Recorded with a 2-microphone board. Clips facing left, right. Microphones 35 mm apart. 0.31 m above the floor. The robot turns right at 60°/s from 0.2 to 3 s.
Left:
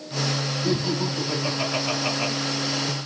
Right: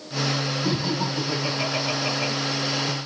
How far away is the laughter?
About 4 m.